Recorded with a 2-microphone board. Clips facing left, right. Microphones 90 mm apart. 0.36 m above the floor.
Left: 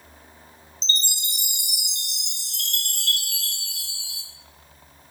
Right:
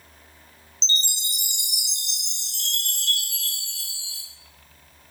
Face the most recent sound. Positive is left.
turn(degrees=80)